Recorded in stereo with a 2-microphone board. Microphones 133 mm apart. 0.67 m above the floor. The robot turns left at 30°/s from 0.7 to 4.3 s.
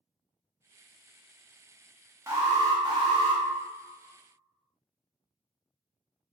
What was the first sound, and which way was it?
An alarm, 30° right.